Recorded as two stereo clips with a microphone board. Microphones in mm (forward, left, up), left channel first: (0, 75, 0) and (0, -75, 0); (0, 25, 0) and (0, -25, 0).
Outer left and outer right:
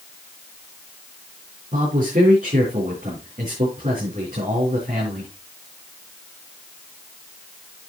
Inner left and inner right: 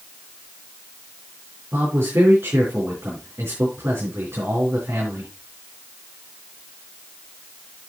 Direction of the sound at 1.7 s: 55° right (ahead or behind).